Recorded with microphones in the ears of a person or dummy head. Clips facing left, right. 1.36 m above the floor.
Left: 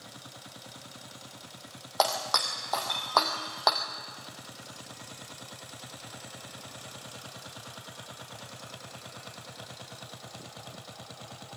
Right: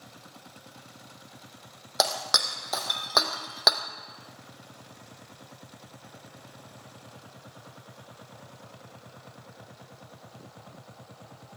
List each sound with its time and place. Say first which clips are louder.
2.0 s breaking glass: left 1 dB; 30° right (ahead or behind), 3 m